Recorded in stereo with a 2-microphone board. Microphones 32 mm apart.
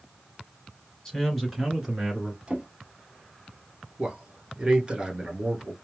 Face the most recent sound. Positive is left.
turn(degrees=-30)  # may be behind; listen again after turning